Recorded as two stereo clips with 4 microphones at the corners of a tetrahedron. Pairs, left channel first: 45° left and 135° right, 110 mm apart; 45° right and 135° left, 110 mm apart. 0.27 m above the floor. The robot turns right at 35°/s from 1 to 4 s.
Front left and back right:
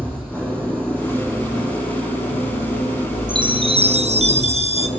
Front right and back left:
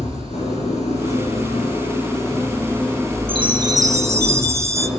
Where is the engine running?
30° right, 9.5 m; by 5.0 s 75° left, 9.5 m.